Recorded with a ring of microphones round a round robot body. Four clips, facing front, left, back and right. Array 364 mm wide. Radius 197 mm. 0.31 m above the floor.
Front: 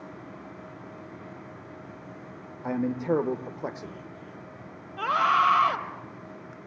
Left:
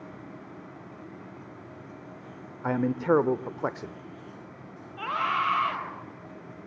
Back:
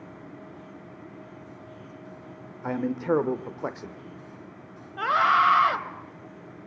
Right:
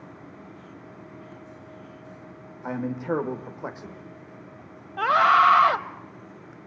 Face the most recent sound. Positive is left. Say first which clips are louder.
# right 10 dB, back 2 dB
turn(degrees=-95)